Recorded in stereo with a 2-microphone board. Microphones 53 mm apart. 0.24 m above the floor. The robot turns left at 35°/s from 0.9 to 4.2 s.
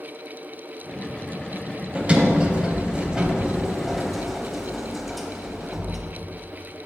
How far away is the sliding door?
About 0.6 m.